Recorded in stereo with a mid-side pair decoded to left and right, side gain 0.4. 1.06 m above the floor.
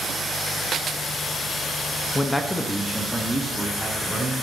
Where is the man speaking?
25° left, 0.8 m; by 4.3 s 5° right, 2.5 m.